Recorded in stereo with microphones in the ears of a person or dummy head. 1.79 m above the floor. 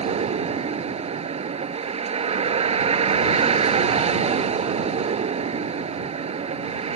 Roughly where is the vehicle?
Right.